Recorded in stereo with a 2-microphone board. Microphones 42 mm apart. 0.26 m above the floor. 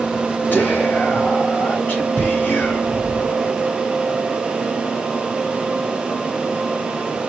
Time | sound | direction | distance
0.5 | whispering | 50° left (ahead or behind) | 2.5 m